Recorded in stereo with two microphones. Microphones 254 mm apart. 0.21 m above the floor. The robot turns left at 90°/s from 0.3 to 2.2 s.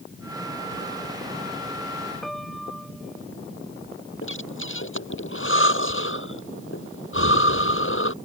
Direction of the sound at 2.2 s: Centre (ahead or behind).